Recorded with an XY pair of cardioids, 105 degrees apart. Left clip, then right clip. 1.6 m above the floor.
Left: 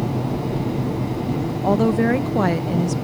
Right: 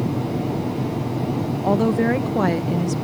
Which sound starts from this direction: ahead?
A woman speaking, at 1.6 s.